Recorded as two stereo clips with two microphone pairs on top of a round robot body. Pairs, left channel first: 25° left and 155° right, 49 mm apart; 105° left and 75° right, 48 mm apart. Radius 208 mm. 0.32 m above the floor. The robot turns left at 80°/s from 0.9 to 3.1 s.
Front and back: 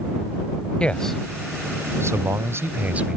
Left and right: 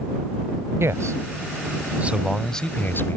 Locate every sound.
0.8 s a man speaking: 45° right; by 3.2 s 140° left